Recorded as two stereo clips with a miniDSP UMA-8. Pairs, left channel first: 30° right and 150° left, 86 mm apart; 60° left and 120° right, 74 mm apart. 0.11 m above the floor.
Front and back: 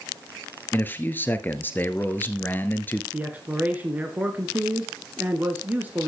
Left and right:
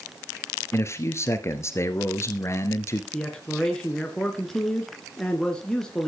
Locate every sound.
0.7 s a man speaking: 30° left, 1.5 m
3.1 s a man speaking: 120° left, 1.6 m